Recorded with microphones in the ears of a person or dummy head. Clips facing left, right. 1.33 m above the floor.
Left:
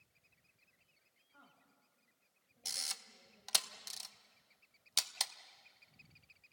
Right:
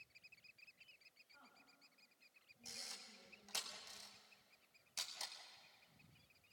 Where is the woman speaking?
45° left (ahead or behind), 9 m; by 3.6 s 60° left (ahead or behind), 8 m.